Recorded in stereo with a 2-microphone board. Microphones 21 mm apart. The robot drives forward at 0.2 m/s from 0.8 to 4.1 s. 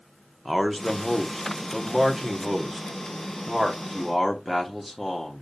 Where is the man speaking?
10° right (ahead or behind), 0.7 m; by 5.4 s 5° right (ahead or behind), 0.8 m.